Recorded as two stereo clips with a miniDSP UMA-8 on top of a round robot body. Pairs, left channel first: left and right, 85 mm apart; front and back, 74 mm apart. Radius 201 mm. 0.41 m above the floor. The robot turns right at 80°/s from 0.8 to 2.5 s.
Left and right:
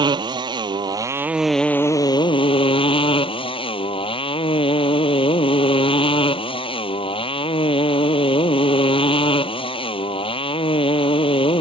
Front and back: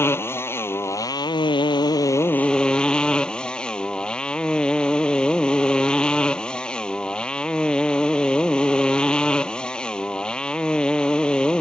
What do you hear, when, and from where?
0.0 s a motorcycle: 55° right; by 11.6 s 80° left